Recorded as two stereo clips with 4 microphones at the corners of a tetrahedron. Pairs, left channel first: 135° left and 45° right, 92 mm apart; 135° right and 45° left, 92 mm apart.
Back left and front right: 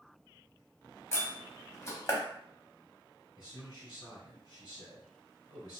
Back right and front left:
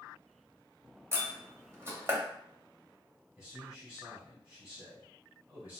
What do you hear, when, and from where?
1.1 s a door slam: 95° left, 0.9 m
3.4 s a man speaking: 100° left, 1.9 m